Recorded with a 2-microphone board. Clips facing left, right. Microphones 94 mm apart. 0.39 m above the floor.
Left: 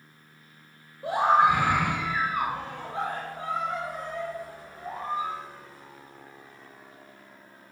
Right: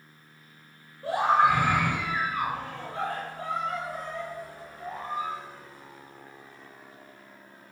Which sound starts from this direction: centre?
A scream, at 1.0 s.